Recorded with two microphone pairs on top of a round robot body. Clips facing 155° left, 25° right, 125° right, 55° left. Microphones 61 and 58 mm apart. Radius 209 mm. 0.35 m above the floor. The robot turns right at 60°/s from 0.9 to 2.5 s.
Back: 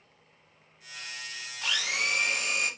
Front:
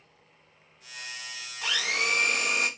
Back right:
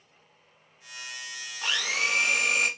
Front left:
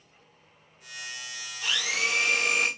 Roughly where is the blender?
Right.